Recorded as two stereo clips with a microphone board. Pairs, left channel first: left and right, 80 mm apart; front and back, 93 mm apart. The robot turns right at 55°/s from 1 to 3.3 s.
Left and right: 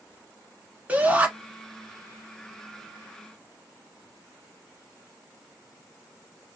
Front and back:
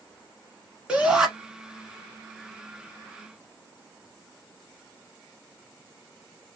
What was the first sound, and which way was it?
A shout, 125° right.